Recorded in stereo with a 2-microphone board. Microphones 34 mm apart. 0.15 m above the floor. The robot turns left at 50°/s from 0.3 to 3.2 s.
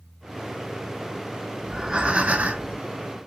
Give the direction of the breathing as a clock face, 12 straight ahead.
1 o'clock.